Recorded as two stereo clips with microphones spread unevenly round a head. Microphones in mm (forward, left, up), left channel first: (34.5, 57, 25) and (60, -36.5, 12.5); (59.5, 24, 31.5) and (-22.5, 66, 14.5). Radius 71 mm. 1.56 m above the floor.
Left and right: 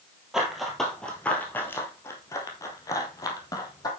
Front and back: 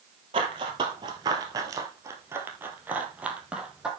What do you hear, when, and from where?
0.3 s running footsteps: 165° right, 1.9 m; by 3.9 s 65° left, 2.5 m